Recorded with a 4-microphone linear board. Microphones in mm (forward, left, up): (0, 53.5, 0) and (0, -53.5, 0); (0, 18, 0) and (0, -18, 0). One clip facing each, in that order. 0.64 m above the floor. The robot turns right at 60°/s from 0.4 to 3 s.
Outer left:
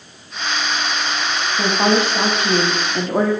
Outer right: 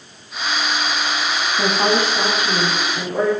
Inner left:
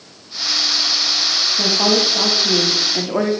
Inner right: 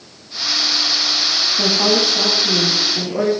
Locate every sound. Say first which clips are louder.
1.6 s a woman speaking: outer left 2 dB, even; 5° right, 0.8 m; by 3.3 s 80° left, 0.8 m